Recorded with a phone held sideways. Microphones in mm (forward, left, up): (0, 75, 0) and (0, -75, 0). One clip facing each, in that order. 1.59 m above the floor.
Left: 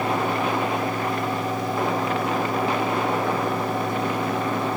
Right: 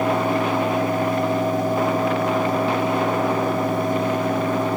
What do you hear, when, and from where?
0.0 s a fan: 50° right (ahead or behind), 5 m